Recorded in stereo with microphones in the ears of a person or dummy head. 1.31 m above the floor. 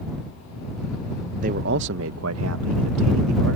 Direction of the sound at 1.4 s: 40° right (ahead or behind).